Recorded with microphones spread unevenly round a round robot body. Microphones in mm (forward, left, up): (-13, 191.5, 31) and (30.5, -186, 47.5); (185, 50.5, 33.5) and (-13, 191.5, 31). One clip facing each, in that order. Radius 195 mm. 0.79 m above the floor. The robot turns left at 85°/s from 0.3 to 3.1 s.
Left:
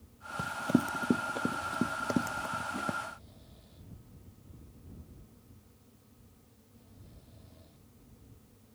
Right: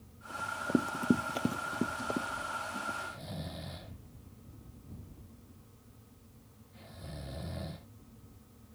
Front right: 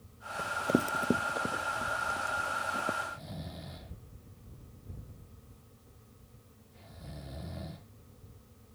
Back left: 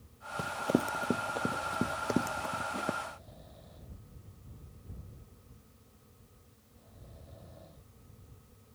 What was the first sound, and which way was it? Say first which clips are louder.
Running footsteps: left 3 dB, even; 90° left.